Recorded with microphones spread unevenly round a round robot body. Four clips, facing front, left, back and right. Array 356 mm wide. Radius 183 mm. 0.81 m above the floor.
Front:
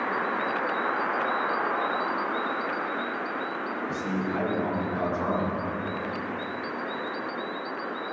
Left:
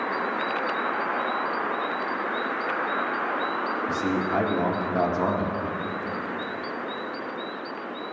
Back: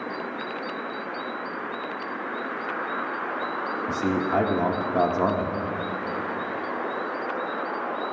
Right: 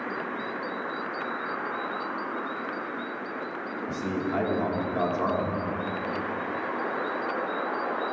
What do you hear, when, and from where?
3.9 s a man speaking: 160° left, 1.7 m